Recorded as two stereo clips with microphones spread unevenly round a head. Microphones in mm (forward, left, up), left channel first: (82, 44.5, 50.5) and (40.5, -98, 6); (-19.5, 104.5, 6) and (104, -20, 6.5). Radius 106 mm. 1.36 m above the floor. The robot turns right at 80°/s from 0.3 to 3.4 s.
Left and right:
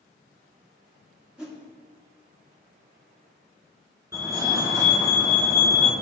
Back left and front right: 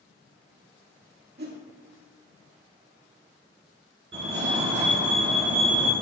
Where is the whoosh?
20° right, 1.9 m; by 1.6 s straight ahead, 1.9 m.